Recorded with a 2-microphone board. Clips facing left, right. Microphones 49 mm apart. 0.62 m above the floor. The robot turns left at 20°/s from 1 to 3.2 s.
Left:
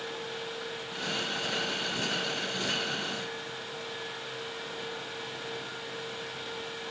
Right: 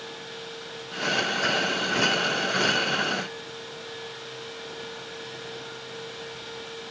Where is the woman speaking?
I don't hear a woman speaking.